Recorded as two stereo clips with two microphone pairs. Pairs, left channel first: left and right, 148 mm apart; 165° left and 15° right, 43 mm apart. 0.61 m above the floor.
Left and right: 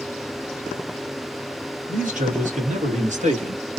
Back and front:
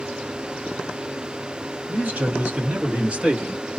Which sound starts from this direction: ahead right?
A man speaking, at 1.9 s.